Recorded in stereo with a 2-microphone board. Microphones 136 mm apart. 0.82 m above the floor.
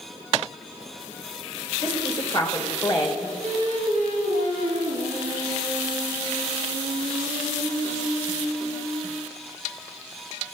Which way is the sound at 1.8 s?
35° left (ahead or behind).